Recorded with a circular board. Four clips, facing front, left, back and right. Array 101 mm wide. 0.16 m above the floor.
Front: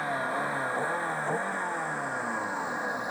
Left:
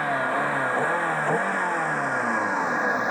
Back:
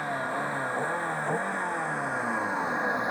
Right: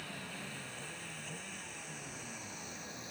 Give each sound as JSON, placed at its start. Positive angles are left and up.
{"t": 0.0, "sound": "a vehicle", "azimuth_deg": 85}